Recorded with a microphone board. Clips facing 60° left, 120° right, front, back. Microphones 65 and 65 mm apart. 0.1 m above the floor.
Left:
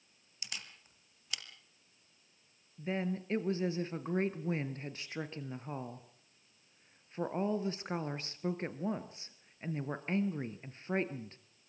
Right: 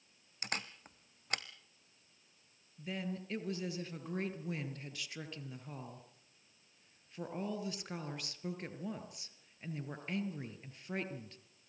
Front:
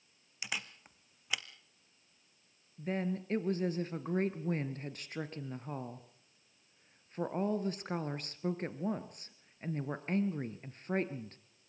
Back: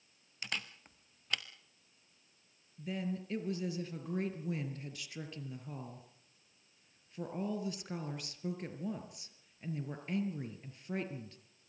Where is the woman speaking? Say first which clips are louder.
Left 5 dB, front 3 dB; 15° left, 1.9 m.